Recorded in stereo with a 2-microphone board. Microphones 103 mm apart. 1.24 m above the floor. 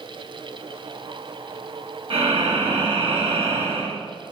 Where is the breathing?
60° right (ahead or behind), 1.1 m.